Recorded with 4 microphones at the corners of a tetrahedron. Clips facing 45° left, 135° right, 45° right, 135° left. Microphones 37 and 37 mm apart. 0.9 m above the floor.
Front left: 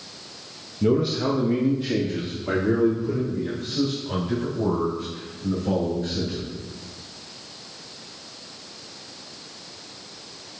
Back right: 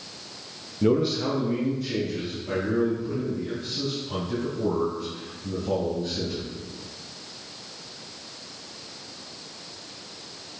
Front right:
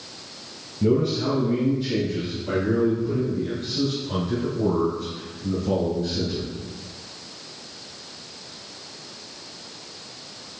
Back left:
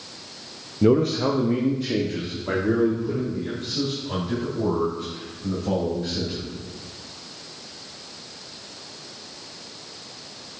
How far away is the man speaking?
About 0.6 m.